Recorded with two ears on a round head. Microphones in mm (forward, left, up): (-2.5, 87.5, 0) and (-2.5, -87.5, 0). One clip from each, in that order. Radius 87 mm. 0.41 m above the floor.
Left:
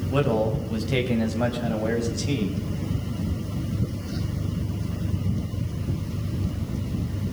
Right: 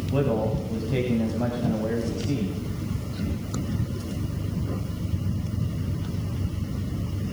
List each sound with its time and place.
0.1 s a man speaking: 45° left (ahead or behind), 3 m; by 2.6 s 70° left (ahead or behind), 3 m